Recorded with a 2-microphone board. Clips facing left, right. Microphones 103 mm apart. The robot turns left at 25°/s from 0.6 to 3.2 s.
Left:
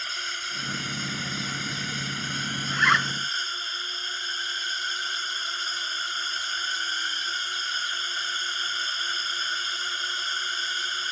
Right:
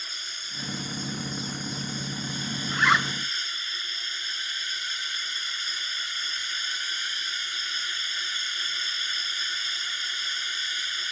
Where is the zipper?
Centre (ahead or behind); by 3.1 s 10° right (ahead or behind).